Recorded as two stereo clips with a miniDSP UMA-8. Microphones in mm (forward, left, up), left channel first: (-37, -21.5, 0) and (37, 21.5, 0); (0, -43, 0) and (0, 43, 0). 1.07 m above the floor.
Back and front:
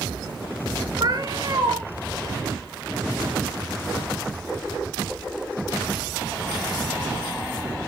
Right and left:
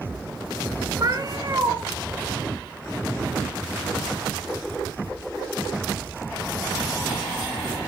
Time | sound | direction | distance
1.0 | a cat meowing | 55° left | 1.7 m